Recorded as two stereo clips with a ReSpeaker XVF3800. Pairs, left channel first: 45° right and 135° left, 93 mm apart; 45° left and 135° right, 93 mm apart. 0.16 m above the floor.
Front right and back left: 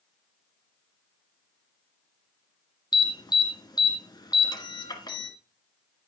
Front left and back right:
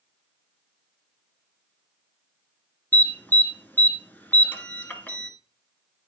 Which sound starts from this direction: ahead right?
An alarm, at 2.9 s.